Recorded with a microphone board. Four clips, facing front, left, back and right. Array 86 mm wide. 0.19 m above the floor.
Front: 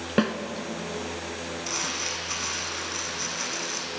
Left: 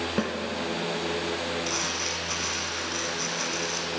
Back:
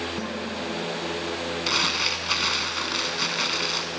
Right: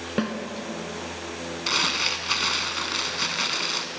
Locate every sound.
0.2 s a snare drum: 10° right, 0.9 m
1.7 s crumpling: 135° right, 0.8 m